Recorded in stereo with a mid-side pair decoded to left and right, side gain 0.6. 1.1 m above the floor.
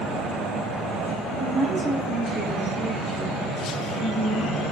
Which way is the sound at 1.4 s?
10° right.